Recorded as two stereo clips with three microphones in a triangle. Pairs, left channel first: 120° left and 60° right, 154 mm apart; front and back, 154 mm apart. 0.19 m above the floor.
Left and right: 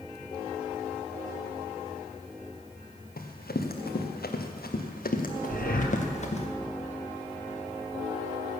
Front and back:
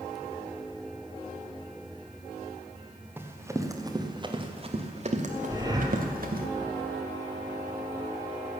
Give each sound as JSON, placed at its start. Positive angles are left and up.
{"t": 3.2, "sound": "running footsteps", "azimuth_deg": 105, "distance_m": 2.0}
{"t": 5.5, "sound": "breathing", "azimuth_deg": 115, "distance_m": 1.7}